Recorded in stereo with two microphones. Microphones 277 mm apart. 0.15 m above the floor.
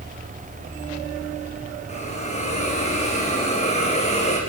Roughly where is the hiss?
Left.